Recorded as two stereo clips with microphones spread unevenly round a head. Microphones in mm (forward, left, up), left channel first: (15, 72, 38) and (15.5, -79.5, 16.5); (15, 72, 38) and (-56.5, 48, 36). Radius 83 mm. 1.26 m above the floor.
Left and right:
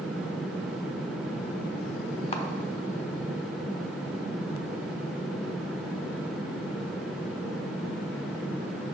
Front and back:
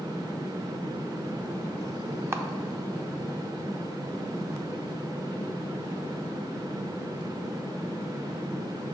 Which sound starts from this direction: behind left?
A camera shutter, at 2.3 s.